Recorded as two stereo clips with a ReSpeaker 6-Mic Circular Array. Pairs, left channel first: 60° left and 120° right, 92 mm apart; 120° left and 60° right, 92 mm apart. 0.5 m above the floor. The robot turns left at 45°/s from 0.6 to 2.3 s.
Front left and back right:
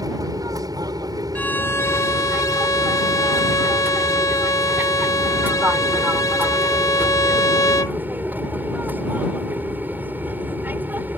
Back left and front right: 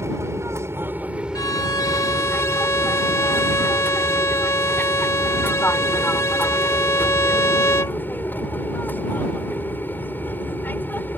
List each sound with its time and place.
0.0 s an aircraft: 105° right; by 11.2 s straight behind
1.4 s a violin: 125° left; by 8.0 s 80° left